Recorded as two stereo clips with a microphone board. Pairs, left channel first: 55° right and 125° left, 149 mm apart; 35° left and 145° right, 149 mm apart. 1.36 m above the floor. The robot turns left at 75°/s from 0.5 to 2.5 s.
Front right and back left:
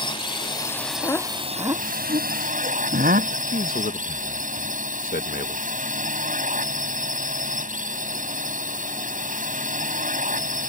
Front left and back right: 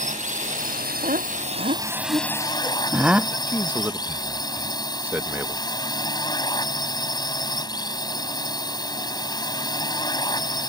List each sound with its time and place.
0.0 s a drone: 115° right; by 10.7 s 95° left
1.0 s laughter: 120° right; by 3.4 s 130° left
3.5 s a man speaking: 70° right